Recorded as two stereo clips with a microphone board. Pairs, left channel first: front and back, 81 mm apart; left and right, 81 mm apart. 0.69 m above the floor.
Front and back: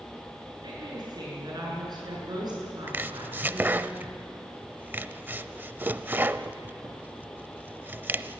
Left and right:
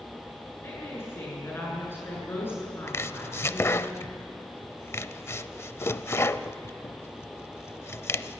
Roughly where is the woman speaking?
Behind left.